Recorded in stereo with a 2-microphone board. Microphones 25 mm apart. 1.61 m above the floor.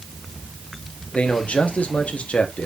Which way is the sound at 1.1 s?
75° left (ahead or behind).